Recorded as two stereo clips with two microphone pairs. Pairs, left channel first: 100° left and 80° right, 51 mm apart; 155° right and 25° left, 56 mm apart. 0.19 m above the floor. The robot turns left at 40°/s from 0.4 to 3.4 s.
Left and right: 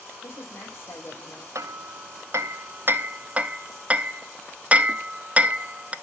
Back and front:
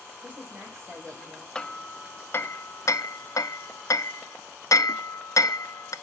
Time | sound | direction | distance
0.2 | a woman speaking | 85° left | 5.5 m
1.6 | hammering | 70° right | 0.5 m